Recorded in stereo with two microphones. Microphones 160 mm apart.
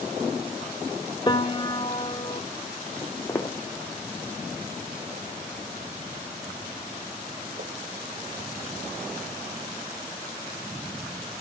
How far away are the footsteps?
About 1.7 m.